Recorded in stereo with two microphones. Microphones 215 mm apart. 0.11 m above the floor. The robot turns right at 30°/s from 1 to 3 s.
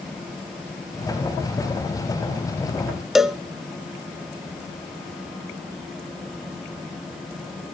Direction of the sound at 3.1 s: Centre (ahead or behind).